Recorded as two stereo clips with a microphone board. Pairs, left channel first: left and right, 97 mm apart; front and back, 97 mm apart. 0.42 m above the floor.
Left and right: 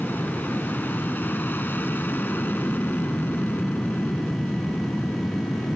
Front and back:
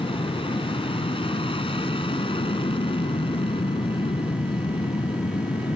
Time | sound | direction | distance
0.0 | an aircraft | 20° left | ?